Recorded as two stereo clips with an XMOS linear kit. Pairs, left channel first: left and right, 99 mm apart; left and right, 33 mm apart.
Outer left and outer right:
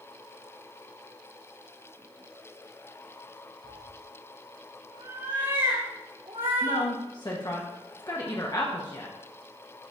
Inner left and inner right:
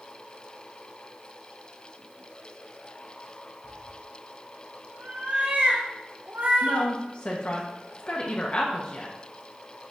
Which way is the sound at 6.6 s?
45° left (ahead or behind).